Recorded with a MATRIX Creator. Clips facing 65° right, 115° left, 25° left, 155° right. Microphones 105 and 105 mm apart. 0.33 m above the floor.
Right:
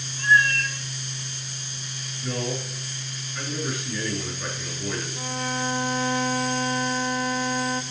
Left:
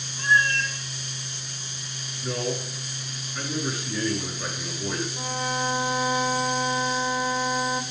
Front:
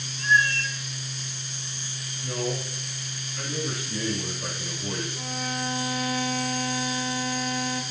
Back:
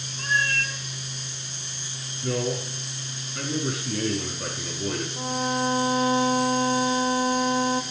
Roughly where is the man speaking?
Behind.